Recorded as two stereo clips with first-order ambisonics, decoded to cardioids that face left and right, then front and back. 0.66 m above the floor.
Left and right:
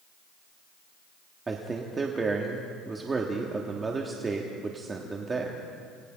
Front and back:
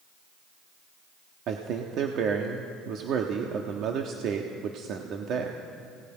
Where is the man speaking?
155° right, 1.3 m.